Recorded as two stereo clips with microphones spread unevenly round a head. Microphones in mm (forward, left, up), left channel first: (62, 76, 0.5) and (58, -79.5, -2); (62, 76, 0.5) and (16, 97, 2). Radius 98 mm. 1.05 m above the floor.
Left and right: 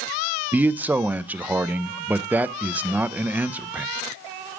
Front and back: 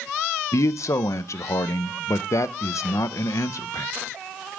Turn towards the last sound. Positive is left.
turn(degrees=-10)